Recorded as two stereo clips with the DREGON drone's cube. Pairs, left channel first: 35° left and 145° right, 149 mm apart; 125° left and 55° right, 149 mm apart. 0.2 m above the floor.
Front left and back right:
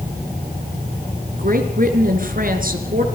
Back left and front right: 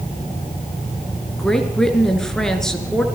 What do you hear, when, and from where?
1.4 s a woman speaking: 150° right, 3.5 m